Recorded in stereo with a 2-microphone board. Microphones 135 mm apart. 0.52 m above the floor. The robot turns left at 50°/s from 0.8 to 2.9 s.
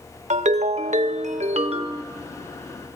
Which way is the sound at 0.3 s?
75° right.